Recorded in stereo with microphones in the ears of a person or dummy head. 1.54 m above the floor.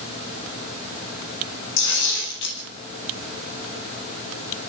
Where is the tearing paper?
65° left (ahead or behind), 10 m.